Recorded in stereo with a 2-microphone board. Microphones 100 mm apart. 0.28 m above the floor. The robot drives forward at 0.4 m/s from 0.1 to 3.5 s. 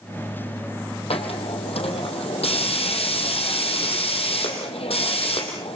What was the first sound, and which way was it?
A hiss, 80° left.